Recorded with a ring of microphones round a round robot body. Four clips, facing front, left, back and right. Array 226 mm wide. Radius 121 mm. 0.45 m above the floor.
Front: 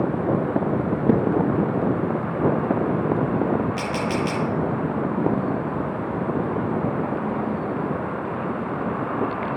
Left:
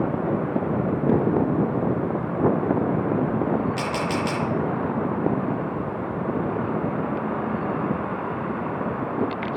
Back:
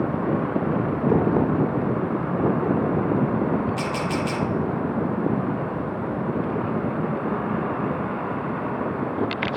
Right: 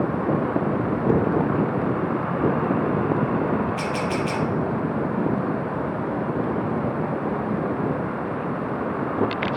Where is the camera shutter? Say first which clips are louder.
Even, front 1 dB; 65° left, 7 m.